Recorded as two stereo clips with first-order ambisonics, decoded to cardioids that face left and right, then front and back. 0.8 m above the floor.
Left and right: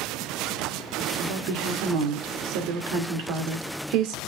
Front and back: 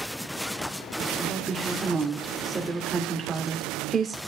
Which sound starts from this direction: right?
A woman speaking, at 1.2 s.